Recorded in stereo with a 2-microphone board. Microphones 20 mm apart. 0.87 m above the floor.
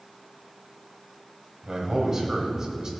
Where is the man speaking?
35° right (ahead or behind), 4.5 m; by 2.9 s 30° right (ahead or behind), 3.5 m.